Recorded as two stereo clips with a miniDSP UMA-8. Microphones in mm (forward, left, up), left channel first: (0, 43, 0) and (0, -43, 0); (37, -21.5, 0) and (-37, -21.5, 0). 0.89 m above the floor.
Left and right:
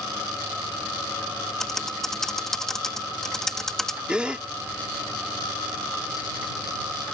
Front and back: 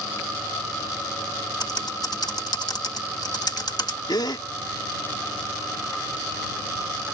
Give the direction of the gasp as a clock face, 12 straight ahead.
12 o'clock.